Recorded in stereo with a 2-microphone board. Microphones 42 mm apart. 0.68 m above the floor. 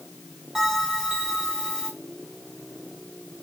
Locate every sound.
0.6 s a bell: 15° right (ahead or behind), 6 m